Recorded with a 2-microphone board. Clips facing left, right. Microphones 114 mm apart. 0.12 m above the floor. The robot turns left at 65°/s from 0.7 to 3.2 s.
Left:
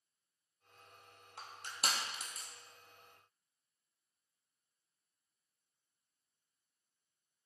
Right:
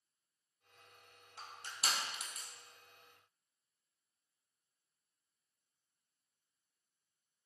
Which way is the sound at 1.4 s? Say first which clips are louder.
Left 2 dB; 75° left (ahead or behind).